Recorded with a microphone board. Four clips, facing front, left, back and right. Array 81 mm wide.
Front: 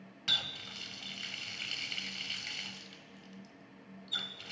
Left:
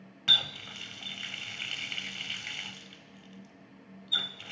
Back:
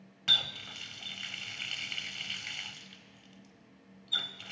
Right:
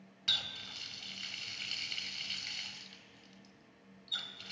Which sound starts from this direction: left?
A running tap, at 0.3 s.